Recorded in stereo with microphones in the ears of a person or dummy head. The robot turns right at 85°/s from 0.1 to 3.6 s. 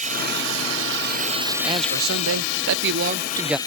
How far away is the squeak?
I don't hear a squeak.